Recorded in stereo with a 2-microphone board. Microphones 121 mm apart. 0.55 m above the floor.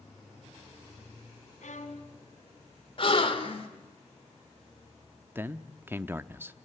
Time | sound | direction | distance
1.6 | a violin | 80° left | 2.5 m
3.0 | a gasp | 45° left (ahead or behind) | 2.0 m
5.3 | a man speaking | 15° right (ahead or behind) | 0.7 m